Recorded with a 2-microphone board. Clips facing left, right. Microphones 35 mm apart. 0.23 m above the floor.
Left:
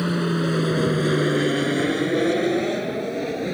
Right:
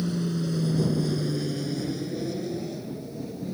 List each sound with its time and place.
0.0 s an aircraft: 55° left (ahead or behind); by 3.5 s 70° left (ahead or behind)